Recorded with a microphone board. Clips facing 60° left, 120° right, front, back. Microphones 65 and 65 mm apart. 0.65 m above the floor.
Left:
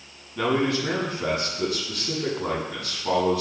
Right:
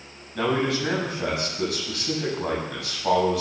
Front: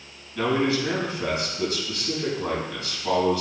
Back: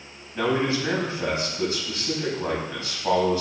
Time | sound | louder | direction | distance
0.3 | a man speaking | left 1 dB, front 1 dB | 120° right | 5.5 m